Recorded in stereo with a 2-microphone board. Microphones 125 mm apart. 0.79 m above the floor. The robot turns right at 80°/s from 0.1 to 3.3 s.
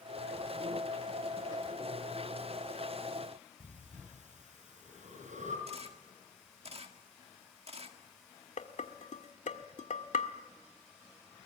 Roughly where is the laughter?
No laughter in this recording.